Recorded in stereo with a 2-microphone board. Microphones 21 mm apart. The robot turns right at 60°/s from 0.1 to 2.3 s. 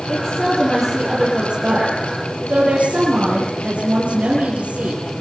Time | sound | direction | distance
0.1 | a woman speaking | 130° left | 10 m